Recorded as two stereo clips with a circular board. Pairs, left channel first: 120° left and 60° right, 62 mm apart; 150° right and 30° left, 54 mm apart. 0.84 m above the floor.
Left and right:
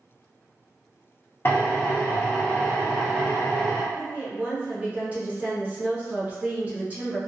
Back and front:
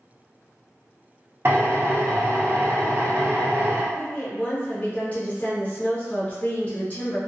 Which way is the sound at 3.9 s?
110° right.